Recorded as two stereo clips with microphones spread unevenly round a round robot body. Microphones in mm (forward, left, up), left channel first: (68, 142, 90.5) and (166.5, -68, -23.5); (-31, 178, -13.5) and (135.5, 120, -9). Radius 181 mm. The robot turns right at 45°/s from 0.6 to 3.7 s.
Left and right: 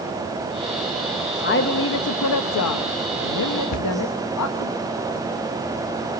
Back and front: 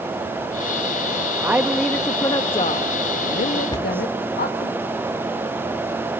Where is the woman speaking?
55° left, 1.2 m; by 4.7 s 160° left, 1.2 m.